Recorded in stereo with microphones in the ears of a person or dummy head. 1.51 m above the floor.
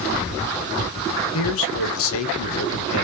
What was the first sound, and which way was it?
A man speaking, 75° left (ahead or behind).